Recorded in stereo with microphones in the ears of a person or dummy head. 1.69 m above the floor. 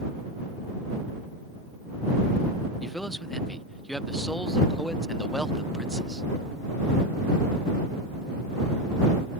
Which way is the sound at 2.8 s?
Centre (ahead or behind).